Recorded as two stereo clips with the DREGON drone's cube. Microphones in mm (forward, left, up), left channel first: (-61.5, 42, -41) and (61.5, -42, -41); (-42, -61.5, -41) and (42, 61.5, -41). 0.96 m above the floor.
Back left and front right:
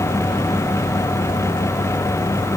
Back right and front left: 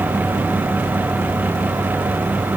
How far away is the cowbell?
No cowbell in this recording.